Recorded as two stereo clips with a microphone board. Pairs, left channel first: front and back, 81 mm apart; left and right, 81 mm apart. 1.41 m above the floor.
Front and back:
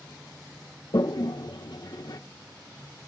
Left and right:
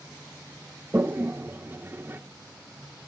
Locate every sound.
0.9 s a toilet flushing: 30° right, 0.9 m